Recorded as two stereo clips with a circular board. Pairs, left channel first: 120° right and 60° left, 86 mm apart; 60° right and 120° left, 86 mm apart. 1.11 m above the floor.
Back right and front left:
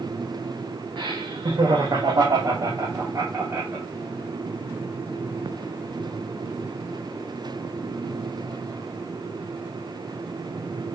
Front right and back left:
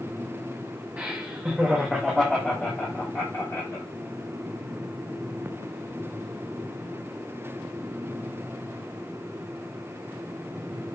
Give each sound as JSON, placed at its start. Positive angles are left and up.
{"t": 1.0, "sound": "laughter", "azimuth_deg": 40, "distance_m": 2.0}